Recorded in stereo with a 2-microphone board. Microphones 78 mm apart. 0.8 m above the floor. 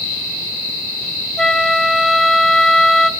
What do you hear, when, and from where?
1.4 s a flute: 5° left (ahead or behind), 0.5 m